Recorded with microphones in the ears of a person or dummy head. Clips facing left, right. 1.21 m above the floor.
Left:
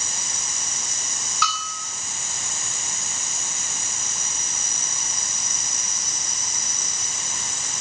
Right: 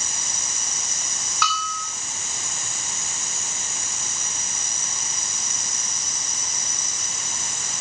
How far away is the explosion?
I don't hear an explosion.